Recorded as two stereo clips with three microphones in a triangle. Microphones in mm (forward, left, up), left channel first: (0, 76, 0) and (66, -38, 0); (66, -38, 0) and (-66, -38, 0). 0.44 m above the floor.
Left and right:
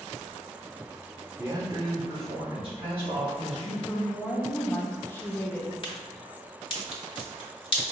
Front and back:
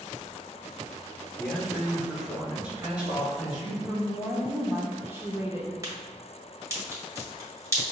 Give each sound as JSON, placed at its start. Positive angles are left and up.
{"t": 1.4, "sound": "a man speaking", "azimuth_deg": -65, "distance_m": 0.7}
{"t": 3.9, "sound": "a woman speaking", "azimuth_deg": 155, "distance_m": 0.7}
{"t": 5.8, "sound": "a crack", "azimuth_deg": 130, "distance_m": 1.4}